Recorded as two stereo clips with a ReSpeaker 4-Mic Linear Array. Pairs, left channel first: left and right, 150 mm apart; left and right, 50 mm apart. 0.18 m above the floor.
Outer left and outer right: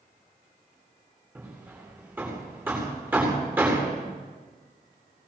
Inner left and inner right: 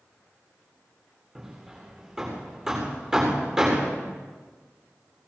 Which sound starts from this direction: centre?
Hammering, at 1.4 s.